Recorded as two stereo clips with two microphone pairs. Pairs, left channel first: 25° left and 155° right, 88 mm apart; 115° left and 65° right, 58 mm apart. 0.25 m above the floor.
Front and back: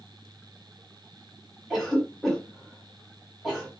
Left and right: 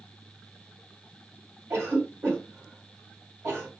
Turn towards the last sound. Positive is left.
turn(degrees=-70)